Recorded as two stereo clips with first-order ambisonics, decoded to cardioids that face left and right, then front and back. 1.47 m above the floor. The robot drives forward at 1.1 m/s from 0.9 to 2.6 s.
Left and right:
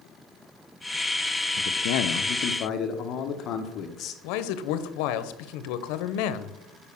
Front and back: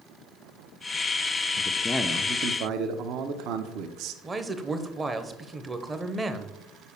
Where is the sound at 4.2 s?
105° left, 0.8 m.